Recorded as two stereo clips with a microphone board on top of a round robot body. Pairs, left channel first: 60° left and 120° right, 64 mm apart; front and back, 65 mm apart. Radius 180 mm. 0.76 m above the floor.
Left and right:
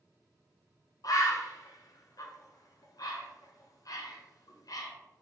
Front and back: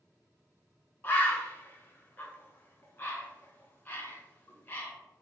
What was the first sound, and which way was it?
A bird, 55° left.